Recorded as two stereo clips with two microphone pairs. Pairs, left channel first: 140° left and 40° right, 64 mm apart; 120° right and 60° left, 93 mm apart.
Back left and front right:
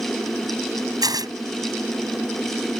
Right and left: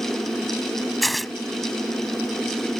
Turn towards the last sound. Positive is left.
turn(degrees=-35)